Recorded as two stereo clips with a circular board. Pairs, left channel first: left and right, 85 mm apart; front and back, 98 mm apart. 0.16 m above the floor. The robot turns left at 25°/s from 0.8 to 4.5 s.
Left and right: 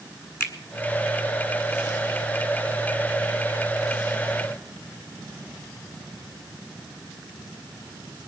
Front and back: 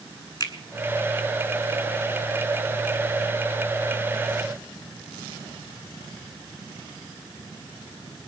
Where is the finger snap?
40° left, 1.7 m.